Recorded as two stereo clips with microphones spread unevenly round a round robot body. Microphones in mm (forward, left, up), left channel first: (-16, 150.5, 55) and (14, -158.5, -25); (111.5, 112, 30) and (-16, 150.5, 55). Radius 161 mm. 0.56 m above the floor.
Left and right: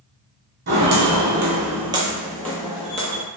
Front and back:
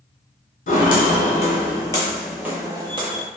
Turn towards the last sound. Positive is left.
turn(degrees=145)